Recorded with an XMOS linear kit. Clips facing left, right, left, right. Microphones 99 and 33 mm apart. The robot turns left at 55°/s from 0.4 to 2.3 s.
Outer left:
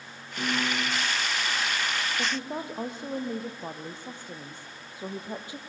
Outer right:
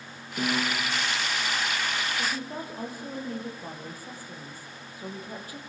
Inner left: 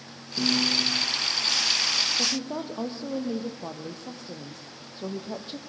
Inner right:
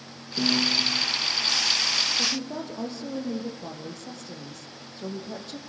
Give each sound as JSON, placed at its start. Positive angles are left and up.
{"t": 0.4, "sound": "a piano", "side_deg": -15, "distance_m": 7.5}
{"t": 2.2, "sound": "a woman speaking", "side_deg": 25, "distance_m": 3.5}